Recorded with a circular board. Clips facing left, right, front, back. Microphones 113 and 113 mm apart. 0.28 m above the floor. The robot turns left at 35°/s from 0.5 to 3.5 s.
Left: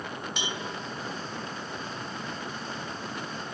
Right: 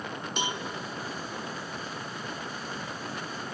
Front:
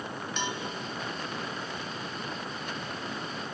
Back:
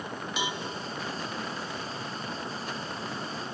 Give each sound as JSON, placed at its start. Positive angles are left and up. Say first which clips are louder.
{"t": 0.4, "sound": "a cowbell", "louder": "right 5 dB, back 1 dB", "azimuth_deg": -100, "distance_m": 1.7}